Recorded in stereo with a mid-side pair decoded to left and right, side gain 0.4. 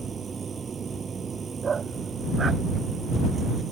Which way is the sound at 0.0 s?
40° right.